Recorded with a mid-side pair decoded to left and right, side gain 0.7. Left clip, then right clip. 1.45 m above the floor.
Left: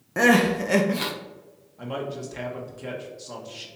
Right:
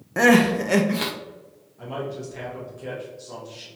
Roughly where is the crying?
Ahead.